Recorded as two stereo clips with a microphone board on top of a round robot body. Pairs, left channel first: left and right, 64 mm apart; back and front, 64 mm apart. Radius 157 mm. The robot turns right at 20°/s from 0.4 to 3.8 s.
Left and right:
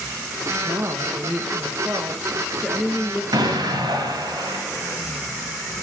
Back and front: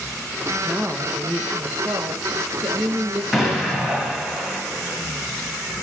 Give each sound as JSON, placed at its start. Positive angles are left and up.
{"t": 0.7, "sound": "a woman speaking", "azimuth_deg": -55, "distance_m": 1.1}
{"t": 3.3, "sound": "an explosion", "azimuth_deg": -85, "distance_m": 2.5}